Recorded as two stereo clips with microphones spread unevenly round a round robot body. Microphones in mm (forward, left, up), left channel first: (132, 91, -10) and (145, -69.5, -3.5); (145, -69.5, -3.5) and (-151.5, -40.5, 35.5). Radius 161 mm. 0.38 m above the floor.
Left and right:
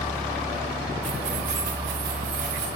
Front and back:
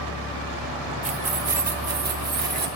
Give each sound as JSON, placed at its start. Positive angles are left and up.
{"t": 1.0, "sound": "keys jangling", "azimuth_deg": -120, "distance_m": 0.9}